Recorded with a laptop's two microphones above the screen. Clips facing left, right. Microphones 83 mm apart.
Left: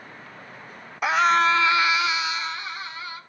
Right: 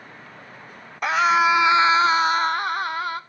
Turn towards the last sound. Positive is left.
turn(degrees=-55)  # may be behind; listen again after turning